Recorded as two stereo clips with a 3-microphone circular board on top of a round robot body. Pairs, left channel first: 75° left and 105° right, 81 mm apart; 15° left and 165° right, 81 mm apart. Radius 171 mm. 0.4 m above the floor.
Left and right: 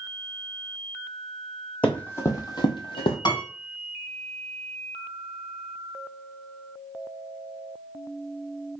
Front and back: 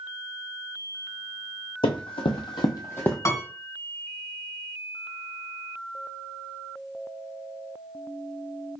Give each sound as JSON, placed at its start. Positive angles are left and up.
{"t": 1.8, "sound": "running footsteps", "azimuth_deg": 0, "distance_m": 1.2}
{"t": 3.2, "sound": "a piano", "azimuth_deg": 65, "distance_m": 2.5}